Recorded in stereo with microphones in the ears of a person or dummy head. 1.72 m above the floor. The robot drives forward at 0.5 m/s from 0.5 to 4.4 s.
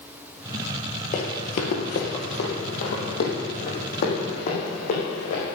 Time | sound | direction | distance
1.1 | running footsteps | 45° left (ahead or behind) | 2.5 m